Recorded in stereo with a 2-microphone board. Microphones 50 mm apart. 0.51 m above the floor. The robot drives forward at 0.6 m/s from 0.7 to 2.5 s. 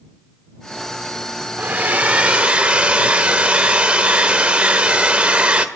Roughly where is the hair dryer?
Right.